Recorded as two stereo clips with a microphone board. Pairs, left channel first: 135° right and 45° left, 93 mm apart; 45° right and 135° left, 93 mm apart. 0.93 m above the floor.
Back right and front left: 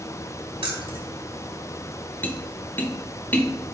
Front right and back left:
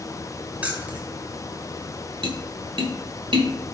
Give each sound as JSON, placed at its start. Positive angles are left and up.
{"t": 0.6, "sound": "keys jangling", "azimuth_deg": 60, "distance_m": 2.0}
{"t": 2.2, "sound": "tapping", "azimuth_deg": 155, "distance_m": 1.3}